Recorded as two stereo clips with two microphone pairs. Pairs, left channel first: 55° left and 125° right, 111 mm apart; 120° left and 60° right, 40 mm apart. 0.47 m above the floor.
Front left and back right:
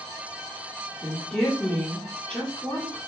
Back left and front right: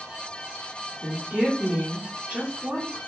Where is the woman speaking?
15° right, 1.1 m.